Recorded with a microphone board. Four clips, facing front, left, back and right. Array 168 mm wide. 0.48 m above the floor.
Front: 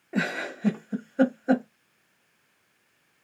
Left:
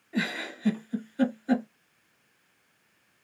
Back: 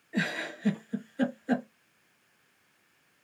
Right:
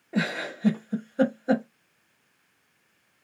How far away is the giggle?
About 0.8 m.